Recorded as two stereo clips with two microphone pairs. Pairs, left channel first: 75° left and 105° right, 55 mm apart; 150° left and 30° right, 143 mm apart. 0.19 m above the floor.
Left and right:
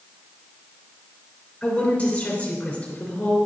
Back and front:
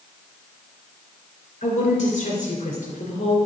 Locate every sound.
1.6 s a woman speaking: 125° left, 3 m